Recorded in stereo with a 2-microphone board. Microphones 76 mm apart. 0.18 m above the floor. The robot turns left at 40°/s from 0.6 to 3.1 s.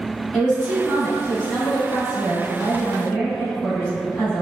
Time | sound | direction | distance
0.3 | a woman speaking | 10° left (ahead or behind) | 1.0 m